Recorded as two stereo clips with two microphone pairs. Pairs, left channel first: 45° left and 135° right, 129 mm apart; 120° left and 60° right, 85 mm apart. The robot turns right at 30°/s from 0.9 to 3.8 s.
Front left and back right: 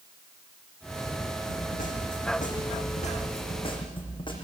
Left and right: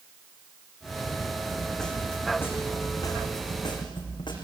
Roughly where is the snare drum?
Ahead left.